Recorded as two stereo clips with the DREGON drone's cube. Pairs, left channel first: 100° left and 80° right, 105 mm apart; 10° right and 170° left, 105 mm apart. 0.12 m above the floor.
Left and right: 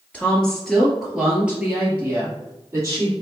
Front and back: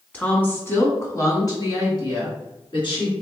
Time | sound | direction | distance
0.1 | a woman speaking | 45° left | 1.3 m